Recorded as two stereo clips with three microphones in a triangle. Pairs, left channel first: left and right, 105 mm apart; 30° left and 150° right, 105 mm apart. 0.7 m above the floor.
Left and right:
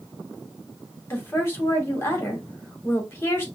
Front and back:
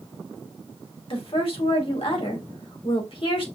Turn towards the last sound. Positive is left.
turn(degrees=25)